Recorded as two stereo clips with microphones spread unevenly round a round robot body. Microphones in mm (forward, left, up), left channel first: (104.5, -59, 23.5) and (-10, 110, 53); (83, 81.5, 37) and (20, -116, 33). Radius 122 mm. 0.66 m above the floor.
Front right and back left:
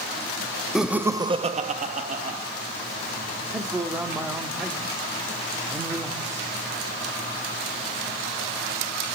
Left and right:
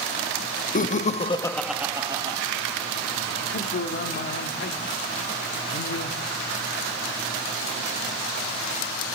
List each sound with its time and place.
0.8 s laughter: 30° left, 1.2 m; by 2.4 s 175° right, 1.6 m
3.5 s a man speaking: 40° left, 1.6 m